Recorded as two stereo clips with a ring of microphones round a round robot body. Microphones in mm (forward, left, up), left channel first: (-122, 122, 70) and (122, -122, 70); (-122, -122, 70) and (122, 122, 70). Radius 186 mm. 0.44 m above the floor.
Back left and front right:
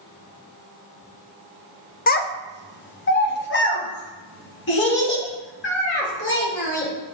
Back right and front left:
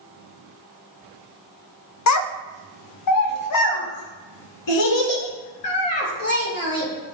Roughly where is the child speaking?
Behind.